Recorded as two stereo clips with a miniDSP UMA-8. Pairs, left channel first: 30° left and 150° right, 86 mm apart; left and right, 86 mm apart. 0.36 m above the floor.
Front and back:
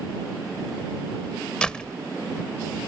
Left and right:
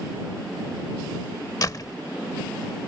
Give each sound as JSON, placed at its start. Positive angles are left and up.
{"t": 1.6, "sound": "a door slam", "azimuth_deg": 105}